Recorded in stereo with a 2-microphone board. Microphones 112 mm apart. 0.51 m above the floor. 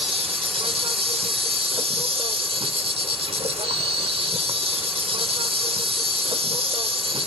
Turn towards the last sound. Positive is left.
turn(degrees=-55)  # may be behind; listen again after turning